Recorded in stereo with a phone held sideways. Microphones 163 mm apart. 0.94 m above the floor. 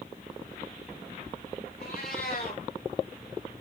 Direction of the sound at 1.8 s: 75° left (ahead or behind).